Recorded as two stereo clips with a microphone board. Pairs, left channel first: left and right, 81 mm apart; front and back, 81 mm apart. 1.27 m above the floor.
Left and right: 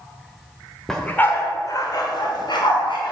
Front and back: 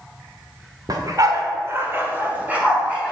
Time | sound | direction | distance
0.9 | a dog barking | 175° left | 1.2 m